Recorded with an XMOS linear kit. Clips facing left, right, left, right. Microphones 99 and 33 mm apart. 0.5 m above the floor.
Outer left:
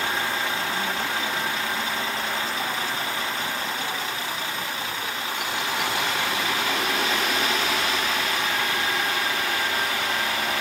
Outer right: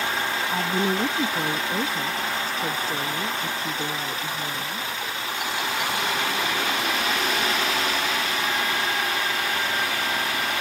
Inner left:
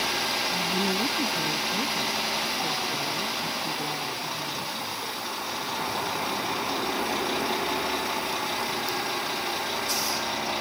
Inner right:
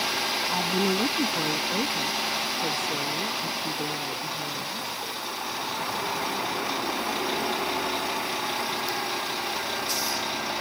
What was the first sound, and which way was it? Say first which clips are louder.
A woman speaking: outer right 4 dB, inner right 1 dB; 75° right (ahead or behind).